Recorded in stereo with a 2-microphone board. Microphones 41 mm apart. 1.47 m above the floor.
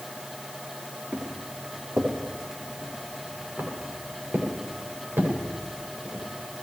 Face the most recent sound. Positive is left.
turn(degrees=-60)  # may be behind; listen again after turning